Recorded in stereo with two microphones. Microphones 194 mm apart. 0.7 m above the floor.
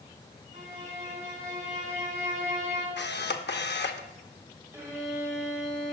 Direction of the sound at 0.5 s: 45° right (ahead or behind).